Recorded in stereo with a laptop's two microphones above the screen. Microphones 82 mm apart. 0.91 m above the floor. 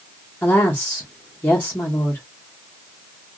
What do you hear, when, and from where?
0.4 s a woman speaking: 20° left (ahead or behind), 1.2 m